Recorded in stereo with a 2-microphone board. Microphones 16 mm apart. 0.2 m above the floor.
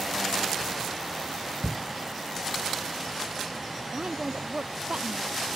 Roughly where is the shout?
Left.